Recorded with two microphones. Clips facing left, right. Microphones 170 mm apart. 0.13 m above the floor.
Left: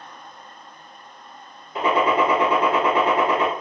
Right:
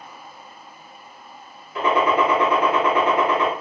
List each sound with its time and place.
1.8 s a gunshot: 30° left (ahead or behind), 1.4 m